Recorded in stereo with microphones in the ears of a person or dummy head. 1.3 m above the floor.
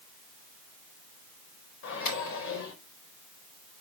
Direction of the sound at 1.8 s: 75° left (ahead or behind).